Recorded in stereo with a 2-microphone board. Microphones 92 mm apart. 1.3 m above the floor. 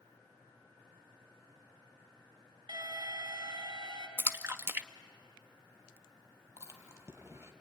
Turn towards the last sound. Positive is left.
turn(degrees=-30)  # may be behind; listen again after turning